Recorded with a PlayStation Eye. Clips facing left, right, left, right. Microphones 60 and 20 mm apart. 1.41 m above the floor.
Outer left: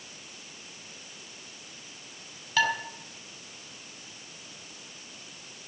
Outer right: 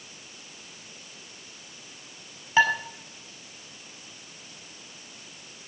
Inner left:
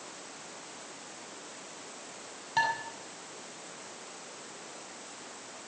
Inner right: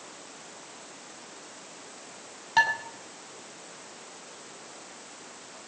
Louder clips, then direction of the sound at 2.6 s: Outer right 5 dB, inner right 5 dB; 30° right (ahead or behind).